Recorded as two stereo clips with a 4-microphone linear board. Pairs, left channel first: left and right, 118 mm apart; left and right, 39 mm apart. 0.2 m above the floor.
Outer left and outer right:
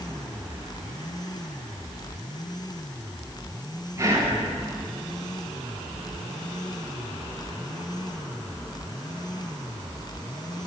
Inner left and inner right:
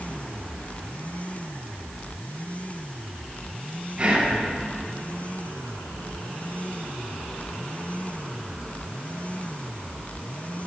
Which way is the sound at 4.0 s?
20° right (ahead or behind).